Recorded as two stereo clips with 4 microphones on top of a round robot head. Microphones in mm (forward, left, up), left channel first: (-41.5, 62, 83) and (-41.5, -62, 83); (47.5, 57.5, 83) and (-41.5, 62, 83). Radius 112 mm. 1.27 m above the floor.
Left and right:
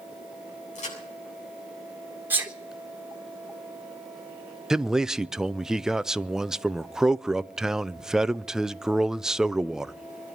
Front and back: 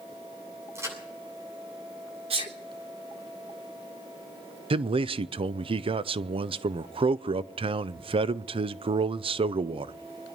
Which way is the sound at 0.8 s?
120° left.